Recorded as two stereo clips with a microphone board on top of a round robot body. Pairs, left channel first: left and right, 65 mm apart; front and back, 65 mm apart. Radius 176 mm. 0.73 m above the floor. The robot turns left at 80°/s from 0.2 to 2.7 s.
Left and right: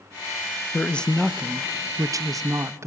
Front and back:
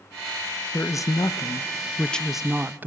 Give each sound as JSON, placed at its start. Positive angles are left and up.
{"t": 0.7, "sound": "a man speaking", "azimuth_deg": 35, "distance_m": 0.6}